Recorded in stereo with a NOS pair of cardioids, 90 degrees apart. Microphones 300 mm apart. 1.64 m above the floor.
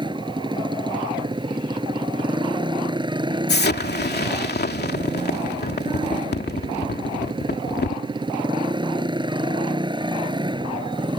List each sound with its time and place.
0.0 s a motorcycle: 15° right
3.5 s an explosion: 35° left